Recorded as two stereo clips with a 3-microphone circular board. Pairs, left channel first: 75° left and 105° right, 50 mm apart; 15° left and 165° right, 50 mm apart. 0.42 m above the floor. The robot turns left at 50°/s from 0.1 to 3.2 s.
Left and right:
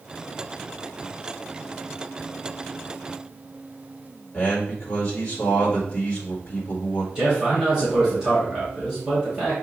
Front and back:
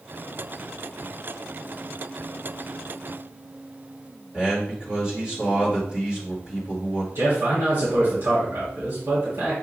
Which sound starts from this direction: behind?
A man speaking, at 7.2 s.